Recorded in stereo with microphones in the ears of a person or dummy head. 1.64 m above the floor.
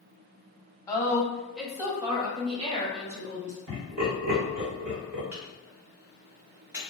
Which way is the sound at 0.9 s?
20° left (ahead or behind).